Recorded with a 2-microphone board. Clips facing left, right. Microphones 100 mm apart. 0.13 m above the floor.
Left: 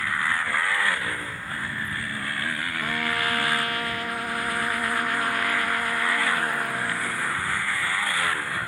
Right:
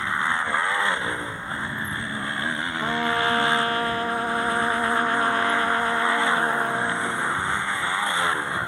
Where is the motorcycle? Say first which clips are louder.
Right 2 dB; 25° right (ahead or behind).